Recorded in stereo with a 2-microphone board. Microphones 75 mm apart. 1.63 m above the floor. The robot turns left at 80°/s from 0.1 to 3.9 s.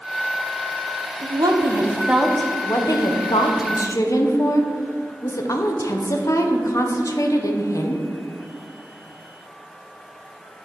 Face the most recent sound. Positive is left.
turn(degrees=45)